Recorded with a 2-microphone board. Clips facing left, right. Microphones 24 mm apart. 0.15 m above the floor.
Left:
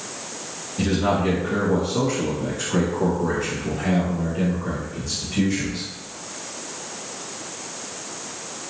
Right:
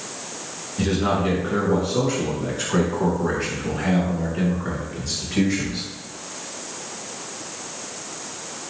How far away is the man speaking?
About 2 m.